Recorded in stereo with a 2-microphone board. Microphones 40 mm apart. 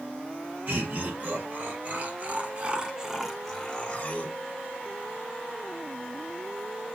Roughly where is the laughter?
Right.